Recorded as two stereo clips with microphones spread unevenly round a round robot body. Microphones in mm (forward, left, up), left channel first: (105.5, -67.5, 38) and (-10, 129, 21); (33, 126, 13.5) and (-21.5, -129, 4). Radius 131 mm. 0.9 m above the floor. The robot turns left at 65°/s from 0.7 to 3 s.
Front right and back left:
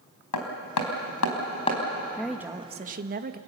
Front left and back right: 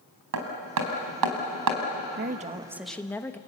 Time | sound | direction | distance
0.3 | hammering | 65° right | 4 m
2.2 | a woman speaking | 145° right | 1.2 m